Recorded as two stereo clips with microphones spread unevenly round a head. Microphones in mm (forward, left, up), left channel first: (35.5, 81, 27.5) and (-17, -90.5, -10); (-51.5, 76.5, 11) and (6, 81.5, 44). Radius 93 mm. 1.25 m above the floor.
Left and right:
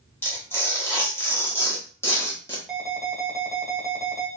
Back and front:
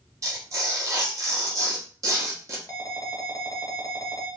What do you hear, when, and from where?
0.2 s tearing paper: straight ahead, 1.2 m
2.7 s an alarm: 165° left, 1.3 m